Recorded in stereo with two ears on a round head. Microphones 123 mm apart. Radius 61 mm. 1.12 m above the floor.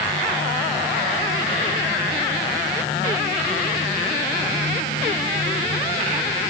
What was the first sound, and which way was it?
Only background noise.